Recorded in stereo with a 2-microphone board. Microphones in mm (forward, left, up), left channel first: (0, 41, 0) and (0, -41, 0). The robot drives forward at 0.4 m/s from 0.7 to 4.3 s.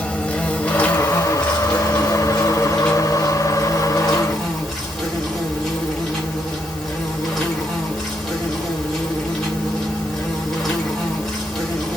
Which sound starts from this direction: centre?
An insect, at 0.0 s.